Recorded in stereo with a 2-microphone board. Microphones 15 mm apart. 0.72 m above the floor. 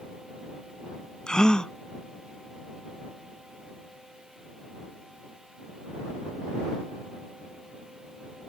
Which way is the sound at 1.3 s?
55° left (ahead or behind).